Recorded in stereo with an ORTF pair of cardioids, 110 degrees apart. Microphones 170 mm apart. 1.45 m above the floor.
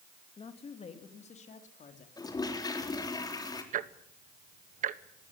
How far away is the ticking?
About 1.1 m.